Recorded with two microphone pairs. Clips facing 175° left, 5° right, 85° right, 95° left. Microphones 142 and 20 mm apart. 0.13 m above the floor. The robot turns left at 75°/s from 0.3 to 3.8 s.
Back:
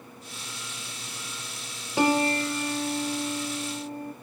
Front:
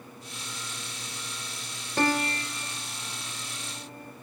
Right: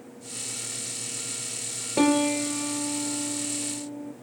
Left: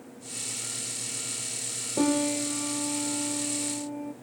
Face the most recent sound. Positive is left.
turn(degrees=115)